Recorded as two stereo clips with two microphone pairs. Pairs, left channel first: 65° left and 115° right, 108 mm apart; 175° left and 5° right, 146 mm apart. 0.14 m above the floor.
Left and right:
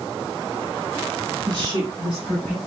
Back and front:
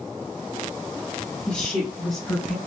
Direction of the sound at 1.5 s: 105° right.